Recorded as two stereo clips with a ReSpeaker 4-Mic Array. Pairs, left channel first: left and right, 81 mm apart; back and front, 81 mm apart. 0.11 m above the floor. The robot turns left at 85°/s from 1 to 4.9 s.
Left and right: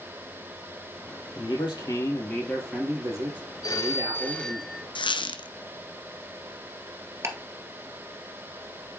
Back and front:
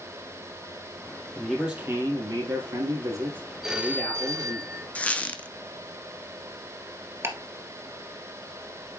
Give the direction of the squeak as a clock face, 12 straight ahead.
8 o'clock.